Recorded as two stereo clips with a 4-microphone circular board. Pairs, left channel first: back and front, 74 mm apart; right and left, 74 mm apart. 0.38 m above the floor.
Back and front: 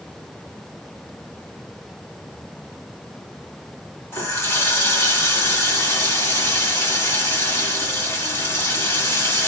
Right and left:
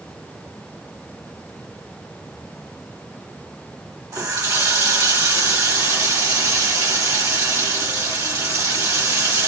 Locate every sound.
4.1 s a running tap: 130° left, 1.4 m